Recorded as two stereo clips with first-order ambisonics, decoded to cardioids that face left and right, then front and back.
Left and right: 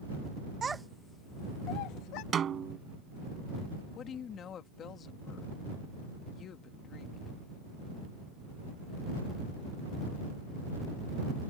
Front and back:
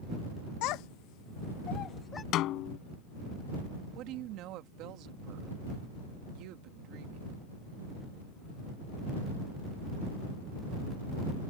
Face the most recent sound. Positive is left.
turn(degrees=145)